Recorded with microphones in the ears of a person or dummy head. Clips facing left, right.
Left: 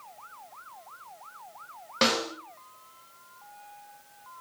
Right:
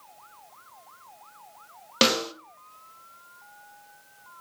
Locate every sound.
2.0 s a snare drum: 40° right (ahead or behind), 0.7 m